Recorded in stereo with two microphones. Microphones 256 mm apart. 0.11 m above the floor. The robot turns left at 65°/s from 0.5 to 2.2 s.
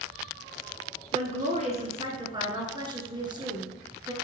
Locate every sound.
1.1 s a woman speaking: 25° right (ahead or behind), 1.3 m; by 4.1 s 20° right (ahead or behind), 1.3 m